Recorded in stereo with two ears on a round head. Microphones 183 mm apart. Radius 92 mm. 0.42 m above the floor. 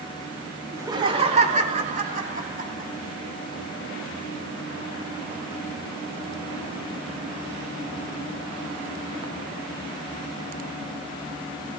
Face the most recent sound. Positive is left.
turn(degrees=-45)  # may be behind; listen again after turning